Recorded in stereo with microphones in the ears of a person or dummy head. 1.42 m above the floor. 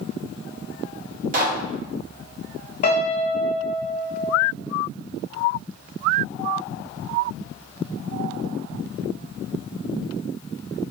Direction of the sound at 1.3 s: 40° right (ahead or behind).